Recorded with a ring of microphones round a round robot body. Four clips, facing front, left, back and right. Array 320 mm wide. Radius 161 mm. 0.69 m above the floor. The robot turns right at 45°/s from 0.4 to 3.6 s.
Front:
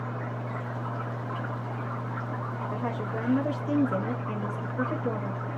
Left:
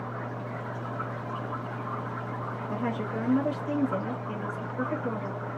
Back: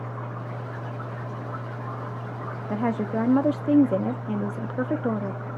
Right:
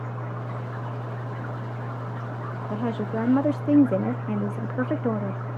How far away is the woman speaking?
About 0.8 m.